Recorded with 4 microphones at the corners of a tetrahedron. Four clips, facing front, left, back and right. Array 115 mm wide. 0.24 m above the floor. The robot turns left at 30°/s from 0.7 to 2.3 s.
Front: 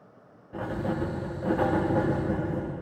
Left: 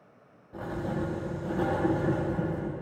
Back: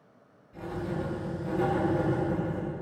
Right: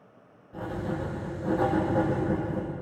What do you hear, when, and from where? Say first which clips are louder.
0.5 s writing: even, front 4 dB; 5° left, 10 m; by 2.7 s 40° right, 10 m